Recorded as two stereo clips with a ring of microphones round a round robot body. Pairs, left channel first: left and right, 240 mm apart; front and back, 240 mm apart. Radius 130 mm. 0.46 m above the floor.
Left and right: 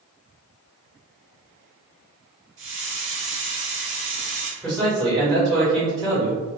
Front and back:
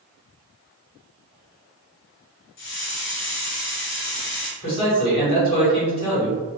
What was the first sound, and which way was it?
A hiss, 40° right.